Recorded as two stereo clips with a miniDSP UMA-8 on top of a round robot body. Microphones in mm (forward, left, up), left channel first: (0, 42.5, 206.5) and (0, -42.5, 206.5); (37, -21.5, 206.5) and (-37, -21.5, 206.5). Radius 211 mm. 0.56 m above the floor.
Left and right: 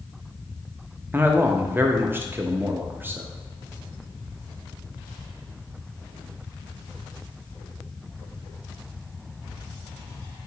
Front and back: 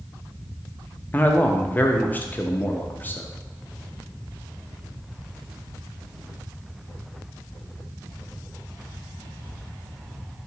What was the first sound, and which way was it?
A man speaking, 45° right.